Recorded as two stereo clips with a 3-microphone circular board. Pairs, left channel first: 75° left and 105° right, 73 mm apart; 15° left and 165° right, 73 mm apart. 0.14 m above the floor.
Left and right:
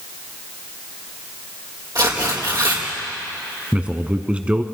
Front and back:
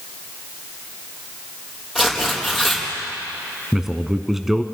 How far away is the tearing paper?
About 4 m.